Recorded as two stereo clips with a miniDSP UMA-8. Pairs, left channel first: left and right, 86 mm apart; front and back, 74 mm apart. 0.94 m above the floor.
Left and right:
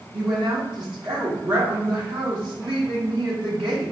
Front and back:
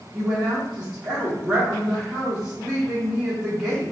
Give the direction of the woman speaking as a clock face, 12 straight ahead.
3 o'clock.